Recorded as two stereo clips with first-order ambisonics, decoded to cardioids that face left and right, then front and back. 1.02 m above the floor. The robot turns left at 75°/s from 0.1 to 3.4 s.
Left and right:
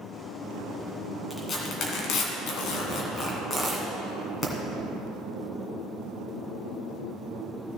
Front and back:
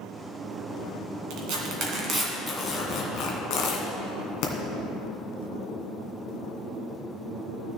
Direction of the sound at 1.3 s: 175° left.